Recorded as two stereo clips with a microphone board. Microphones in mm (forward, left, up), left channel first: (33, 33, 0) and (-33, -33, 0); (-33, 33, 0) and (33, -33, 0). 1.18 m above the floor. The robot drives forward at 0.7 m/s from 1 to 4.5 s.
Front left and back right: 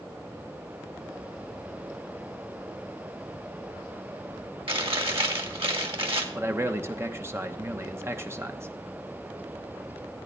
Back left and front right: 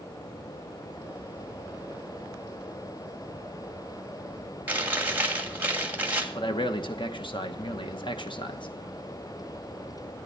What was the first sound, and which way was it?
Chewing, 115° right.